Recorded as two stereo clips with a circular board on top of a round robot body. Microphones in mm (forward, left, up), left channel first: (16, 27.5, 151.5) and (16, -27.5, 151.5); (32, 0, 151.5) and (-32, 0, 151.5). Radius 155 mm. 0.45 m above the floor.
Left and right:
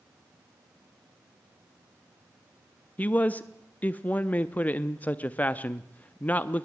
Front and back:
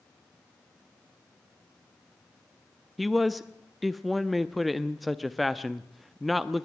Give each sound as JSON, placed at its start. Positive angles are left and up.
{"t": 3.0, "sound": "a man speaking", "azimuth_deg": 90, "distance_m": 0.9}